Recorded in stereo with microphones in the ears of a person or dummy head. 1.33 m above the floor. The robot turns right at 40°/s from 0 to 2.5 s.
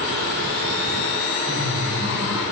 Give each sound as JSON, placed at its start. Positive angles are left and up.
{"t": 1.5, "sound": "laughter", "azimuth_deg": -50, "distance_m": 6.5}